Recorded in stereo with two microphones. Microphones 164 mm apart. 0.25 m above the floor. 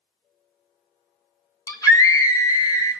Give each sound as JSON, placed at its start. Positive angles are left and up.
{"t": 1.7, "sound": "a scream", "side_deg": 25, "distance_m": 2.0}